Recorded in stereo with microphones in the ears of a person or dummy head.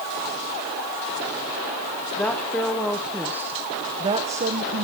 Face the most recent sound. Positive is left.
turn(degrees=-50)  # may be behind; listen again after turning